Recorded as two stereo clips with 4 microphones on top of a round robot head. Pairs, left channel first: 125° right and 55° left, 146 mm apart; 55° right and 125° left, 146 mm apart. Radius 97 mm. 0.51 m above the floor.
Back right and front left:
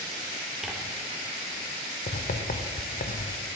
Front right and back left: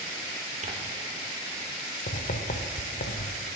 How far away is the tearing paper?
About 1.5 m.